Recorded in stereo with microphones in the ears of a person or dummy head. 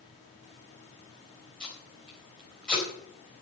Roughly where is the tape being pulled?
Centre.